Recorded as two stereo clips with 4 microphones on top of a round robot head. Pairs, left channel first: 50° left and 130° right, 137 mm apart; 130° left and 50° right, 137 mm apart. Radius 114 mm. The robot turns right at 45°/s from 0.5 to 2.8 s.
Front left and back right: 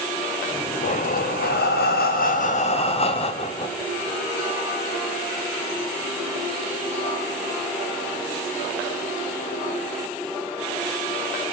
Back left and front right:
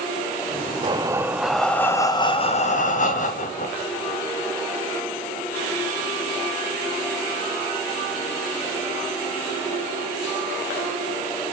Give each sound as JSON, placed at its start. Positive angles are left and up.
{"t": 0.8, "sound": "breathing", "azimuth_deg": 10, "distance_m": 0.5}